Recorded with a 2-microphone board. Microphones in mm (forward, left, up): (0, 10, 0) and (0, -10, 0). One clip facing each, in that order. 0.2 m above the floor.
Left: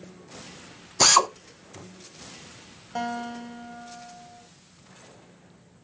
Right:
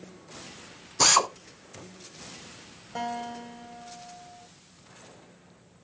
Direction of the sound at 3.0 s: 10° left (ahead or behind).